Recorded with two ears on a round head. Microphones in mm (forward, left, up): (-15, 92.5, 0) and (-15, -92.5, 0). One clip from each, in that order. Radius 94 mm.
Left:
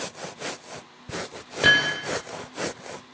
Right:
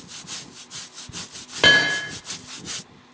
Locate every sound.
1.6 s hammering: 45° right (ahead or behind), 4.5 m